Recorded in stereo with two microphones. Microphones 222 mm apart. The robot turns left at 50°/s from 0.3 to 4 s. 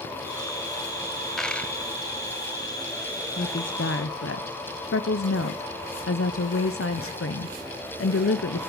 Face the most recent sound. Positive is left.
turn(degrees=105)